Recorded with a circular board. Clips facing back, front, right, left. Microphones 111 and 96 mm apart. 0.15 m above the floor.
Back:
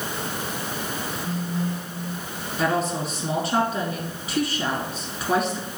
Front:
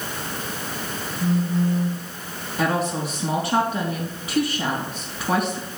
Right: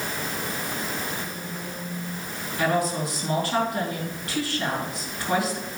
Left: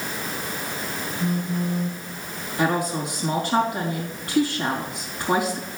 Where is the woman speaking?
20° left, 4 m.